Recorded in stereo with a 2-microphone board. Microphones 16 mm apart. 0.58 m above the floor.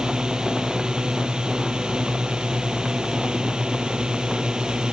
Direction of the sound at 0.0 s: 65° right (ahead or behind).